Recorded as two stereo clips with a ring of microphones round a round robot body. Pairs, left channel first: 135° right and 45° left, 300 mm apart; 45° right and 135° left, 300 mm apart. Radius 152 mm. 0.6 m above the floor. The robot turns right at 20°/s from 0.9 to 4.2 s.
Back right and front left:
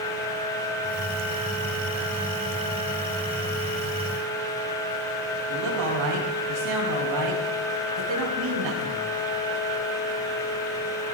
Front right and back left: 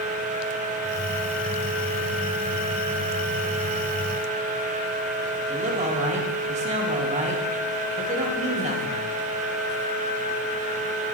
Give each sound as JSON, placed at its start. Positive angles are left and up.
{"t": 5.5, "sound": "a man speaking", "azimuth_deg": 70, "distance_m": 4.5}